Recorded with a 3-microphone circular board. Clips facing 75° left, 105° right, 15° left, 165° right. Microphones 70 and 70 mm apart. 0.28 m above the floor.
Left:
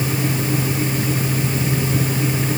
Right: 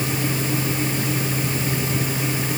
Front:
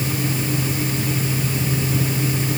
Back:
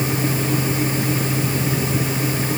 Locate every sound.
Only background noise.